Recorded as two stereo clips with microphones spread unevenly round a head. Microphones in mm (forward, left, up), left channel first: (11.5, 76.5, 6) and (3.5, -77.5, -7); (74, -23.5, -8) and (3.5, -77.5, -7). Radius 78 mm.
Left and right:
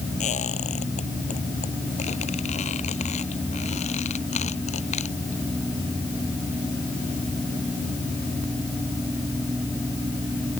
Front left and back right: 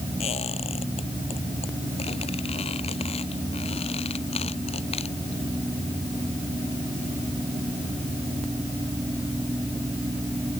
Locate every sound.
0.2 s a squeak: 40° left